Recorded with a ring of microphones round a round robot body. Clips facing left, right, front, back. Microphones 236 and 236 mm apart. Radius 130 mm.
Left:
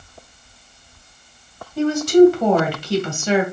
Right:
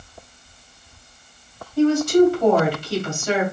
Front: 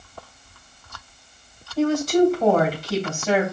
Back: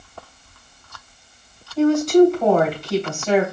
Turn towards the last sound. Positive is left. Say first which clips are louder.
# left 3 dB, back 5 dB
turn(degrees=90)